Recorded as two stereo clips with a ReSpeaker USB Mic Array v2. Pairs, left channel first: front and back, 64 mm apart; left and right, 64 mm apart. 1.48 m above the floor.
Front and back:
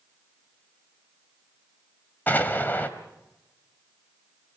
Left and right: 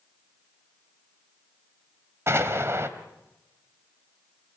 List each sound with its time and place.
2.3 s an explosion: 55° right, 2 m